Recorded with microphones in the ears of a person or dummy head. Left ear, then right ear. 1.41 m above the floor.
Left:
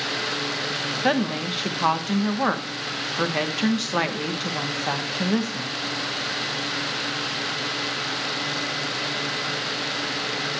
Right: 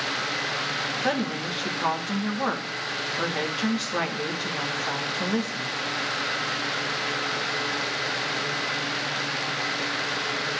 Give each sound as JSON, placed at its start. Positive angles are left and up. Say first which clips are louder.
{"t": 1.0, "sound": "a woman speaking", "louder": "left 3 dB", "side_deg": 25, "distance_m": 1.0}